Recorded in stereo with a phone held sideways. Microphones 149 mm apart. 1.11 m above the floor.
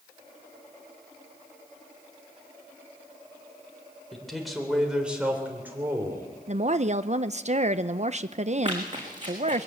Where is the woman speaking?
50° right (ahead or behind), 0.7 m.